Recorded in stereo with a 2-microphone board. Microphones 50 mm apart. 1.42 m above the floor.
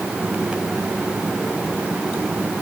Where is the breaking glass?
No breaking glass in this recording.